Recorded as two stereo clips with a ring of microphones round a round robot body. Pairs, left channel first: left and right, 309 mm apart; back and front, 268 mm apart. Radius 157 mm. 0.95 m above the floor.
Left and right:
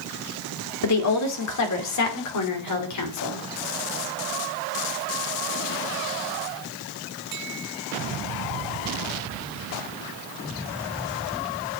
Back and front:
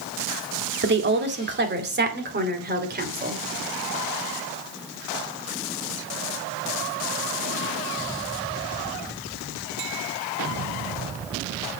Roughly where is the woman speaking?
Ahead left.